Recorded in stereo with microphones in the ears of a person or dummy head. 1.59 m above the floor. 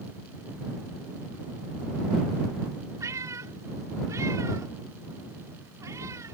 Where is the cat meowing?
15° right (ahead or behind).